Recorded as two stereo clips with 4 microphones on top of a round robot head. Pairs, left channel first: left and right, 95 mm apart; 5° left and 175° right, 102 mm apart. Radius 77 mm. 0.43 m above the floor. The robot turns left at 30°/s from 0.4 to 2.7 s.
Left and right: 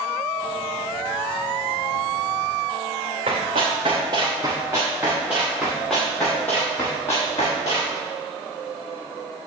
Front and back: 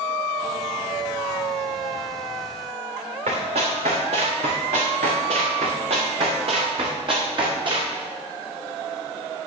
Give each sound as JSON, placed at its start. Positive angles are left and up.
{"t": 3.3, "sound": "running footsteps", "azimuth_deg": -135, "distance_m": 4.0}